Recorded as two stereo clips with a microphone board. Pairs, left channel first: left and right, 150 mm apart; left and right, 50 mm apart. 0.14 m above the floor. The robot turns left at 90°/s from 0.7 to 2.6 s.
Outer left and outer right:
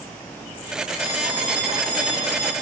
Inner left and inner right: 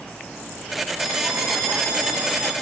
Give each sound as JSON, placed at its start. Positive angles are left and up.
{"t": 1.0, "sound": "a bell", "azimuth_deg": -25, "distance_m": 3.0}